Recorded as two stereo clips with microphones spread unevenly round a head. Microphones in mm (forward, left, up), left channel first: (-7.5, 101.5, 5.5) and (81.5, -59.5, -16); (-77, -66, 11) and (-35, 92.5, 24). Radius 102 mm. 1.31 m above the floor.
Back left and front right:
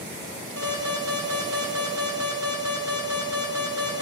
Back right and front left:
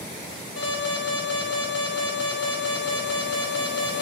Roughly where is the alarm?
Right.